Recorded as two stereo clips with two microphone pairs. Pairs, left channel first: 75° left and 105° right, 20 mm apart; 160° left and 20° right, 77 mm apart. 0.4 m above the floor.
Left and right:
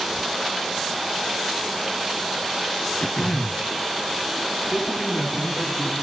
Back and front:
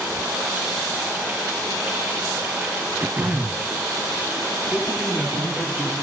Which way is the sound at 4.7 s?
70° left.